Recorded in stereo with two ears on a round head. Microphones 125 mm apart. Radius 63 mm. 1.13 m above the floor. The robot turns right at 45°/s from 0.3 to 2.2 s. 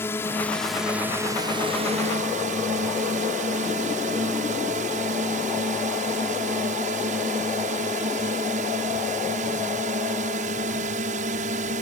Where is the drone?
165° left; by 11.8 s 110° right.